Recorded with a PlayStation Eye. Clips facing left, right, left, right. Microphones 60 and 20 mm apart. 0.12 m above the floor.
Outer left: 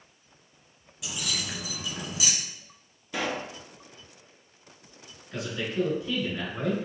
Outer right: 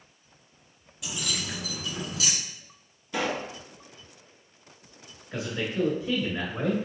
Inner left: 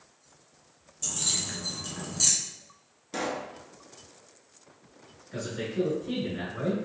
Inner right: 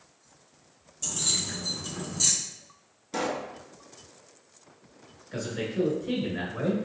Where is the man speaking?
25° right (ahead or behind), 1.1 m.